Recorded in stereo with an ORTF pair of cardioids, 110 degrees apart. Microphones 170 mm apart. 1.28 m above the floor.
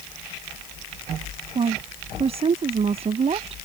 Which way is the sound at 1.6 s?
35° right.